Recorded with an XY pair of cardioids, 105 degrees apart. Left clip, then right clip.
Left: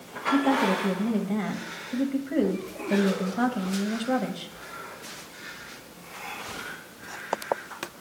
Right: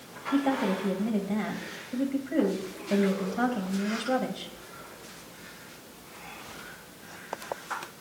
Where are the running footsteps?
No running footsteps in this recording.